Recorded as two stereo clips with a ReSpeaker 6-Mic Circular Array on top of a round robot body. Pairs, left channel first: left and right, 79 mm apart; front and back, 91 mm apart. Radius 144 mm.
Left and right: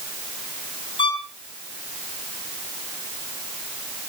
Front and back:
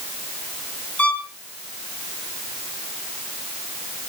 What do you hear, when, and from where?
1.0 s a violin: 75° left, 4.5 m